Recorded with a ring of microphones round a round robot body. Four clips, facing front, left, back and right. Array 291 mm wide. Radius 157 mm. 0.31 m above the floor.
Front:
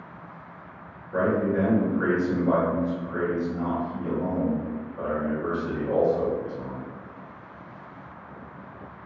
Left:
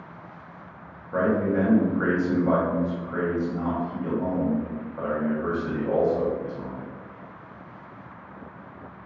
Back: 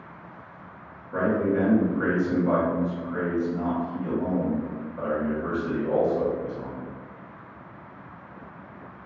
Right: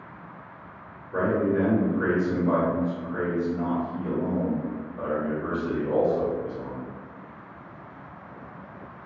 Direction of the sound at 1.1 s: 95° left.